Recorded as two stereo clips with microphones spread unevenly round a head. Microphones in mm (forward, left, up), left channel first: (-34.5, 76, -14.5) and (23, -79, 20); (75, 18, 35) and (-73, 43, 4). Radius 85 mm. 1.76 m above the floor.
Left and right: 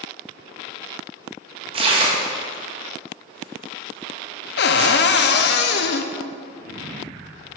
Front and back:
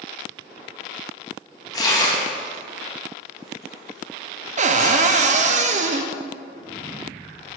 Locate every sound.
1.7 s tearing paper: 55° right, 1.2 m
4.6 s a cupboard door: 130° left, 0.6 m